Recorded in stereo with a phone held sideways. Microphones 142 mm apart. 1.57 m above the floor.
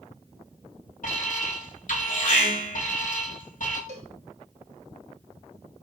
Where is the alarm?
70° left (ahead or behind), 4.5 m.